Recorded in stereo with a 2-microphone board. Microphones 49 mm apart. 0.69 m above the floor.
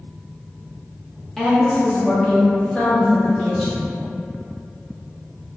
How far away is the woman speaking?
About 0.6 m.